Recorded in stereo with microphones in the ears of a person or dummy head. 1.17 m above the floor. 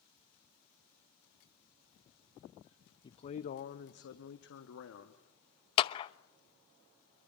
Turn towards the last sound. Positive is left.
turn(degrees=25)  # may be behind; listen again after turning